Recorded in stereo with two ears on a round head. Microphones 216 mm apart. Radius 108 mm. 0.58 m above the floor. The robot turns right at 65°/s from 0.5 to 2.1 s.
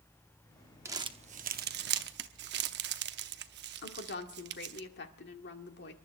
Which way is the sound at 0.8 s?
10° right (ahead or behind).